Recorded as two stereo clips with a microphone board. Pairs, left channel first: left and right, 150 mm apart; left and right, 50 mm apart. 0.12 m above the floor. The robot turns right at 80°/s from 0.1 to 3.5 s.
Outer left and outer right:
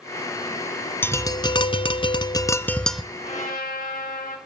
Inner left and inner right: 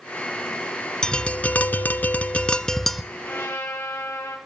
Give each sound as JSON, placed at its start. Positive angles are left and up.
{"t": 1.0, "sound": "tapping", "azimuth_deg": 25, "distance_m": 0.5}
{"t": 3.1, "sound": "a trumpet", "side_deg": 35, "distance_m": 3.5}